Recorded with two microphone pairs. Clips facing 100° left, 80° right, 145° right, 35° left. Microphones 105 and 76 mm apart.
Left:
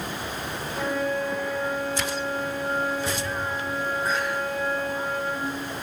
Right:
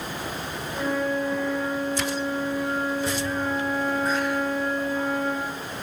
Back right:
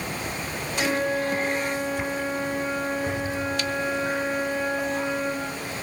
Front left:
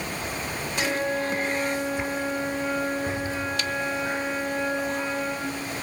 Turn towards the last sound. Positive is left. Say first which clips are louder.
# right 1 dB, back right 2 dB
turn(degrees=150)